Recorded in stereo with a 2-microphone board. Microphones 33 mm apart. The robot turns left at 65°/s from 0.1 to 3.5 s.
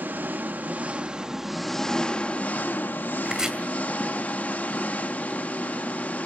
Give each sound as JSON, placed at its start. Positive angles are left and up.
{"t": 0.0, "sound": "an engine running", "azimuth_deg": -80, "distance_m": 0.8}
{"t": 3.2, "sound": "chopping", "side_deg": -30, "distance_m": 2.0}